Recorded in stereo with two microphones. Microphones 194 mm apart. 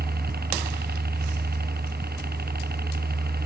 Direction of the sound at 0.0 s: 55° right (ahead or behind).